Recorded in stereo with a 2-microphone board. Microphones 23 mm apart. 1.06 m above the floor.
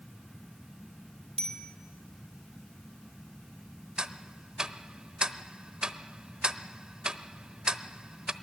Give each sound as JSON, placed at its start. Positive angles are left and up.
{"t": 1.4, "sound": "a bicycle bell", "side_deg": 35, "distance_m": 3.5}
{"t": 4.0, "sound": "ticking", "side_deg": -40, "distance_m": 0.9}